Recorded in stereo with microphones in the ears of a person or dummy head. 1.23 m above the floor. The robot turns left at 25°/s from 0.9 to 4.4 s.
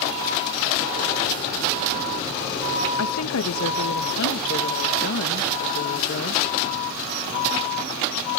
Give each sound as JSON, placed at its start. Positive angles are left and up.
{"t": 3.0, "sound": "a woman speaking", "azimuth_deg": 95}